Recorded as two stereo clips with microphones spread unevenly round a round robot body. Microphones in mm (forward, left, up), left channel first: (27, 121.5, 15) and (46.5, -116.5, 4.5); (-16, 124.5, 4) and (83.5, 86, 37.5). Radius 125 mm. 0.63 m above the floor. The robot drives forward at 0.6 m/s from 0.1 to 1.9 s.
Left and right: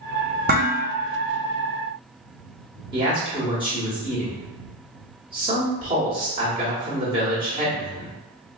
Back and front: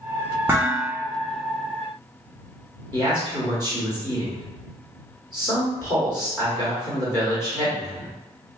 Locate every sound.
0.5 s dishes clattering: 105° right, 0.6 m; by 0.9 s 135° right, 0.7 m
2.9 s a man speaking: 150° right, 1.2 m